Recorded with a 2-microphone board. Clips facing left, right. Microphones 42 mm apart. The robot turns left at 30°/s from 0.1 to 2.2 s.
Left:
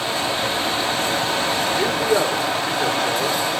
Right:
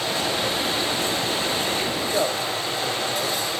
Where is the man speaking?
60° left (ahead or behind), 3 m; by 3.4 s 70° left (ahead or behind), 3 m.